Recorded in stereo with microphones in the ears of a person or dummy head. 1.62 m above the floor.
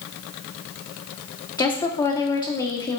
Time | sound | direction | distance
1.6 | a woman speaking | 20° left (ahead or behind) | 1.2 m